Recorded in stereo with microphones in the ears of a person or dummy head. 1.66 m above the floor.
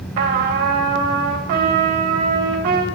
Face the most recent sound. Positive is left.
turn(degrees=-55)  # may be behind; listen again after turning